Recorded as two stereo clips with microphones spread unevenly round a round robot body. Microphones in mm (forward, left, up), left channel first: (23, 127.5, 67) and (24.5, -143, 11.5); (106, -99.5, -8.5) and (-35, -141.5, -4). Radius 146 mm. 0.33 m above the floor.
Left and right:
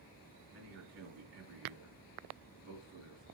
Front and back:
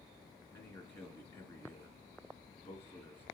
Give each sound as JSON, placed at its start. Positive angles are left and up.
{"t": 0.5, "sound": "a man speaking", "azimuth_deg": -60, "distance_m": 4.0}